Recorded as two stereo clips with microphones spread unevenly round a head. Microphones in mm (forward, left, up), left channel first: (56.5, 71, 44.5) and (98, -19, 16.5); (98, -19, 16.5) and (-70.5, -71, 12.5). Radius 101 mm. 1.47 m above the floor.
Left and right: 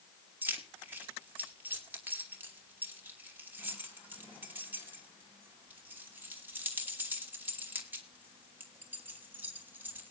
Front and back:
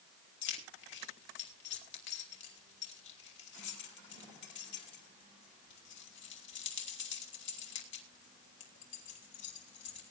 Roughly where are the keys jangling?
Ahead.